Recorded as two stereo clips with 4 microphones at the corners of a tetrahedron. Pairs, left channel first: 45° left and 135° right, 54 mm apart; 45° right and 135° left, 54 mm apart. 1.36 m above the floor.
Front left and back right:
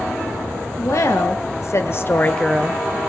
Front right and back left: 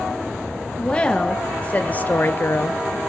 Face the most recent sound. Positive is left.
turn(degrees=-95)